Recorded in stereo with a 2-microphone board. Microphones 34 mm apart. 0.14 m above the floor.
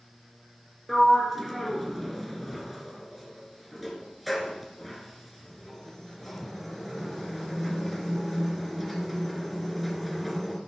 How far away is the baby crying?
No baby crying in this recording.